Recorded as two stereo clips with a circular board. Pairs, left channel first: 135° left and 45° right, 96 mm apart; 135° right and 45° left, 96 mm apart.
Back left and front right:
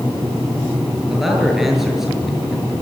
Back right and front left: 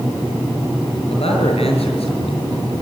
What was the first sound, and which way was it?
A man speaking, 135° right.